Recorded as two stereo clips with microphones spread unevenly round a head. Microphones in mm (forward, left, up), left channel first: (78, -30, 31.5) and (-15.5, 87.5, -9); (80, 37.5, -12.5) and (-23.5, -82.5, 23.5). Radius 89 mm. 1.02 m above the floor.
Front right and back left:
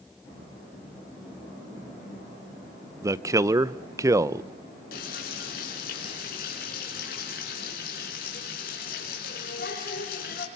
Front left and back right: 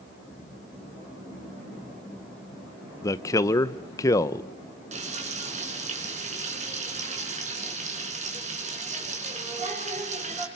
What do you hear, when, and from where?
3.0 s a man speaking: 95° left, 0.7 m
4.9 s frying: 90° right, 4.5 m